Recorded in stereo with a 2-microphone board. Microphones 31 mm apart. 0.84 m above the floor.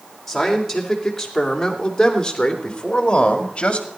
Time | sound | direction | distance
0.3 | a man speaking | centre (ahead or behind) | 4 m